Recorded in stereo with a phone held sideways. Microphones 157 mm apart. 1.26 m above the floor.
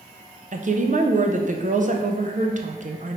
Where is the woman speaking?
55° right (ahead or behind), 0.5 m.